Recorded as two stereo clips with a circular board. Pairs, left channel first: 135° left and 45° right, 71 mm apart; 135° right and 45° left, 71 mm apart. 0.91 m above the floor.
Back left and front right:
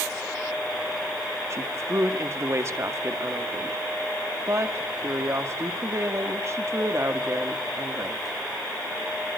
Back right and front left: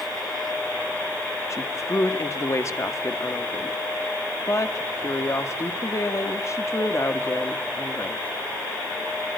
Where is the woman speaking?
90° right, 1.7 m.